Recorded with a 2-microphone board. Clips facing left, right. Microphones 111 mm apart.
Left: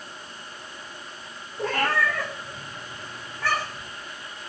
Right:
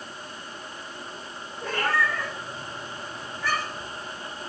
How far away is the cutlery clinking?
I don't hear cutlery clinking.